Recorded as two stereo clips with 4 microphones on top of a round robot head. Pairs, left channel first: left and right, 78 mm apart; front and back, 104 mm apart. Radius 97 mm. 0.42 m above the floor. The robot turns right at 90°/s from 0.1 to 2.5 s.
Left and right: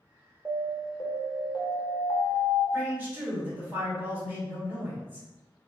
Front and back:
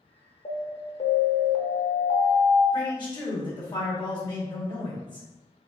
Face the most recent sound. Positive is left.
turn(degrees=-25)